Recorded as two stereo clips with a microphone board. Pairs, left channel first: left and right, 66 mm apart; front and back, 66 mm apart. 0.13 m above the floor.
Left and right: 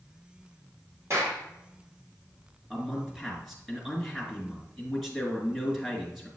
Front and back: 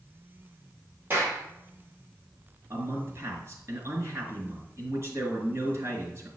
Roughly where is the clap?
Behind right.